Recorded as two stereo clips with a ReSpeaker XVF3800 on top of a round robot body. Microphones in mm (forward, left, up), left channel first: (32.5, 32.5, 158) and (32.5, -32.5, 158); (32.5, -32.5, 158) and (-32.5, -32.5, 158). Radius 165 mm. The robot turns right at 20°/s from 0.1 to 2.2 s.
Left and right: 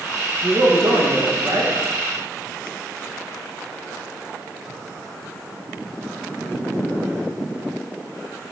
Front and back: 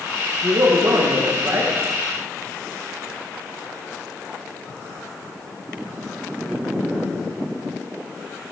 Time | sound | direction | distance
0.4 | a man speaking | 150° right | 1.7 m